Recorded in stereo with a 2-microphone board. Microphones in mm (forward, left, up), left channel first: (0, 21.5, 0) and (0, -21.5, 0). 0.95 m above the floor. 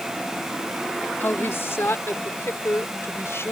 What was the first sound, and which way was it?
A woman speaking, 65° left (ahead or behind).